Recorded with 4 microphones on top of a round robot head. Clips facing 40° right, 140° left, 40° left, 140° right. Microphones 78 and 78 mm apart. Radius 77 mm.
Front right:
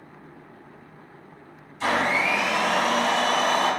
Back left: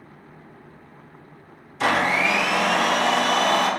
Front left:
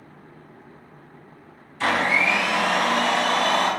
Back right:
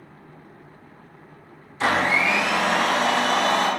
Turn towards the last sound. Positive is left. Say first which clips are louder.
# back left 2 dB, back right 1 dB
turn(degrees=150)